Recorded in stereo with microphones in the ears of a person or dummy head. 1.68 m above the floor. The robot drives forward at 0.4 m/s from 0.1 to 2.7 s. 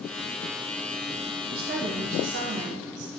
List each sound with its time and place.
1.5 s a woman speaking: 50° right (ahead or behind), 1.3 m; by 3.1 s 65° right (ahead or behind), 1.1 m